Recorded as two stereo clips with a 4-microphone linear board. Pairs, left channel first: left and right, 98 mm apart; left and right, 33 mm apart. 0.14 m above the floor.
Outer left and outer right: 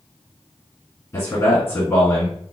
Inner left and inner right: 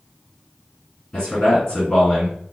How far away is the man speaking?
About 1.8 m.